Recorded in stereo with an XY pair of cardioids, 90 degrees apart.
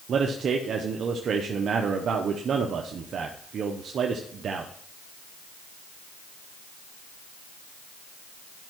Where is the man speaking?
65° right, 0.8 m.